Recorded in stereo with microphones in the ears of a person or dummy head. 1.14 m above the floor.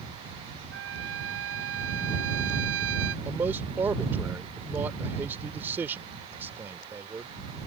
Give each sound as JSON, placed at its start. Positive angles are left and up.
{"t": 0.7, "sound": "a trumpet", "side_deg": -80}
{"t": 3.2, "sound": "a man speaking", "side_deg": -15}